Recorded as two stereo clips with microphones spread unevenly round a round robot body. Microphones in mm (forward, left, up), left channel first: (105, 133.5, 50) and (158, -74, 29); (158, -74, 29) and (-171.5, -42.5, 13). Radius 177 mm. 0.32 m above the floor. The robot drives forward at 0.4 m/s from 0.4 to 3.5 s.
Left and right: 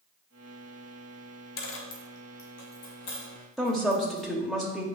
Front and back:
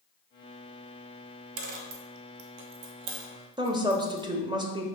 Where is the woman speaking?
150° right, 0.8 m.